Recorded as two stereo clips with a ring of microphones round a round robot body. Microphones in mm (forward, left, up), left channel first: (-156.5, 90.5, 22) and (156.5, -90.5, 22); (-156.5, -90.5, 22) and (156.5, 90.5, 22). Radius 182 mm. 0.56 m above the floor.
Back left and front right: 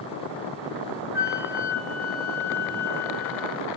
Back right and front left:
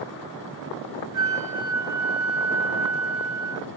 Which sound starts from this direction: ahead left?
A flute, at 1.1 s.